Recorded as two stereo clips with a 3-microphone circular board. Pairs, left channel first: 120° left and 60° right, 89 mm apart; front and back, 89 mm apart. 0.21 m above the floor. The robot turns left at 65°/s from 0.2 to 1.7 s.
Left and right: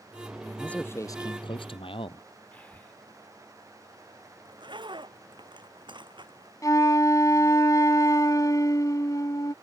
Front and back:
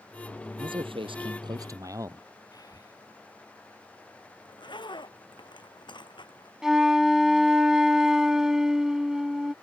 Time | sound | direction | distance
0.6 | a man speaking | 155° right | ?
2.5 | breathing | 45° left | ?
4.5 | a zipper | 30° right | ?
6.6 | a flute | 100° left | ?